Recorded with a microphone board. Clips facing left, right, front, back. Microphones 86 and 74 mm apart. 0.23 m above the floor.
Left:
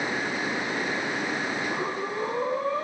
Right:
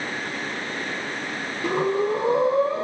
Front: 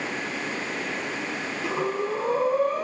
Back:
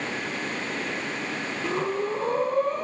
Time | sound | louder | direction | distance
1.6 | breathing | right 7 dB, even | 85° right | 7.5 m